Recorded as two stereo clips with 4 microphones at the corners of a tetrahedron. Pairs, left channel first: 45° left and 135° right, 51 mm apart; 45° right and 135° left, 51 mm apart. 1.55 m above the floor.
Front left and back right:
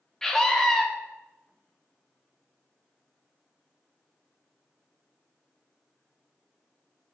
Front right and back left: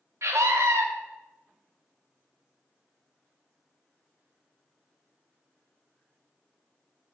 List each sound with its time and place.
0.2 s a scream: 125° left, 1.4 m